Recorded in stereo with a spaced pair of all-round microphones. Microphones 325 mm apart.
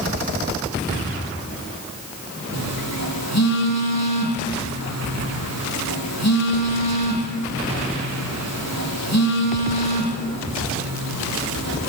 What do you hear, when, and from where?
2.5 s a phone buzzing: 55° left (ahead or behind), 9 m